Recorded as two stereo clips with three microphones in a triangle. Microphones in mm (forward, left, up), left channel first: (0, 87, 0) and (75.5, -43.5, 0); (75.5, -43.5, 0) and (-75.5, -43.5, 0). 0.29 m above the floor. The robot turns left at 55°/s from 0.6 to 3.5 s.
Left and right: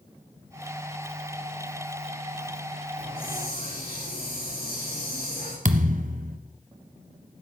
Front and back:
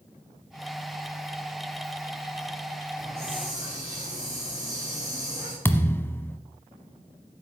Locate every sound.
3.0 s a hiss: 145° left, 7.5 m; by 5.5 s 115° left, 7.5 m
5.7 s a thud: 75° right, 1.0 m